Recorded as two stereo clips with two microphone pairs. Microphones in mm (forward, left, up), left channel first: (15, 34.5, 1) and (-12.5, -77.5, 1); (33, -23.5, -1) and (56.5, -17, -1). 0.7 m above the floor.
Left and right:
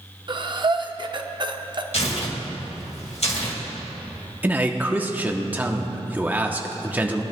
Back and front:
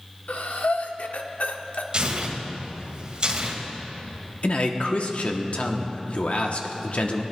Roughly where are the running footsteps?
No running footsteps in this recording.